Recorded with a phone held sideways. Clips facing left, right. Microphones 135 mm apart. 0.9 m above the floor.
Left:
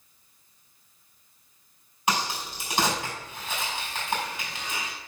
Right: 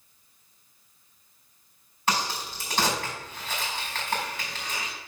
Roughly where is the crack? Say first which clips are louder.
Even; centre.